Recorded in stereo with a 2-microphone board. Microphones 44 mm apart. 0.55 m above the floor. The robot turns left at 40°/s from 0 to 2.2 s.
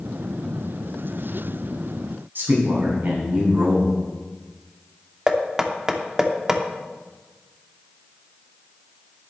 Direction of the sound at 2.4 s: 55° right (ahead or behind).